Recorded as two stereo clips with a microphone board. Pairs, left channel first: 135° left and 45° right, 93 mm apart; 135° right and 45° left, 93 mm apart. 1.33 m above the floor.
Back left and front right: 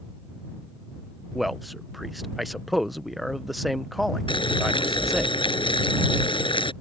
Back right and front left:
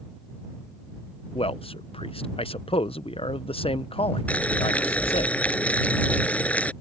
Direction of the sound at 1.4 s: 135° right.